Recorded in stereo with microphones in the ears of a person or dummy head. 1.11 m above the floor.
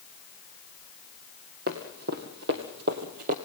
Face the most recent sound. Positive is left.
turn(degrees=-50)  # may be behind; listen again after turning